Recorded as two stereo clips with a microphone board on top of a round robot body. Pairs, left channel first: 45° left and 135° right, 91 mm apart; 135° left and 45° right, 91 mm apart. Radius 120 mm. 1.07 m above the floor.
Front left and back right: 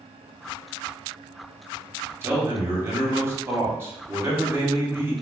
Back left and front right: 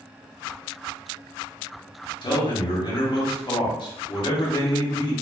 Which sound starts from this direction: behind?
A man speaking, at 2.2 s.